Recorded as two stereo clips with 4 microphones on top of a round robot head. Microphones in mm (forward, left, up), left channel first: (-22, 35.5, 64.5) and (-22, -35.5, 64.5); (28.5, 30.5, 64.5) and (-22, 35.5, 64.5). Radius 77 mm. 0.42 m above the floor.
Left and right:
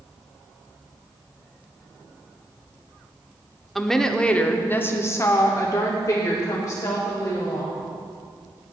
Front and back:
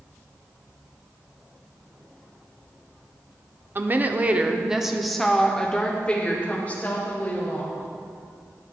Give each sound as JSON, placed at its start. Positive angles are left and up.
{"t": 3.8, "sound": "a woman speaking", "azimuth_deg": 180, "distance_m": 1.2}